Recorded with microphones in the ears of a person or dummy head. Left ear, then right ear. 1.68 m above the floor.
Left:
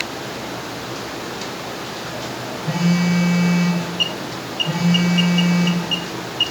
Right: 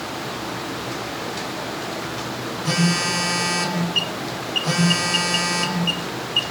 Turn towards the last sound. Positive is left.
turn(degrees=-80)